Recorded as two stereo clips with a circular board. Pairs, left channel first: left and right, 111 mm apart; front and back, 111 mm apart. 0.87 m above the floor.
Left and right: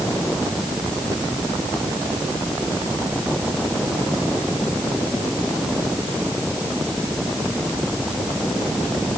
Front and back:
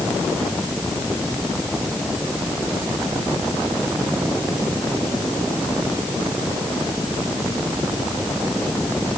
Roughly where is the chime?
No chime in this recording.